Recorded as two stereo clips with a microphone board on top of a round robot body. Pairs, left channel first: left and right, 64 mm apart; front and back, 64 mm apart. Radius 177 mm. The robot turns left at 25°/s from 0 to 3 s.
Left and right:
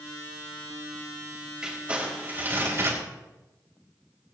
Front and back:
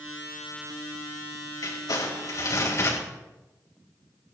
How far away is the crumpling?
About 4.5 m.